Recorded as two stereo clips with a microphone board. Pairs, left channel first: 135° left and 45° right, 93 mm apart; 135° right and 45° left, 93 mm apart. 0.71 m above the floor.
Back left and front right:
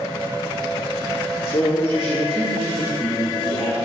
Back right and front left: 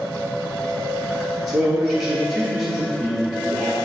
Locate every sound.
1.5 s a man speaking: 100° left, 0.9 m